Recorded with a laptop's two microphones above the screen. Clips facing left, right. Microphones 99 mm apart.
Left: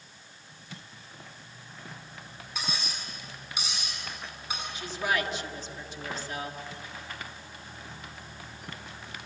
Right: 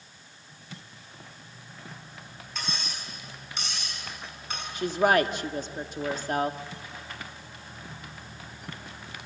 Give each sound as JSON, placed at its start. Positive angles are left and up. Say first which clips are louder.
{"t": 2.5, "sound": "cutlery clinking", "louder": "even", "side_deg": 10, "distance_m": 6.5}
{"t": 4.8, "sound": "a woman speaking", "louder": "right 9 dB", "side_deg": -50, "distance_m": 1.6}